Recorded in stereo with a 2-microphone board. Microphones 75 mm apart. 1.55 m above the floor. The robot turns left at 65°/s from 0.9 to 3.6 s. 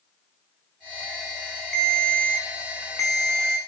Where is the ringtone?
Straight behind, 0.9 m; by 3.6 s 60° left, 0.9 m.